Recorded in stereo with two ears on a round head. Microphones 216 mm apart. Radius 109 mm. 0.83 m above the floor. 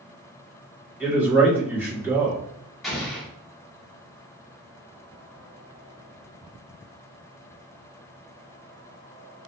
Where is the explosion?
Centre (ahead or behind), 1.0 m.